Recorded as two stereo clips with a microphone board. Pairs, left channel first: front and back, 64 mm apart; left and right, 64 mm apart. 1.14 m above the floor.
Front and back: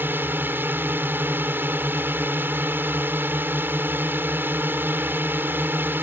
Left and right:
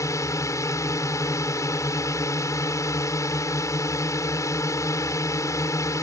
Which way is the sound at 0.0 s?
125° left.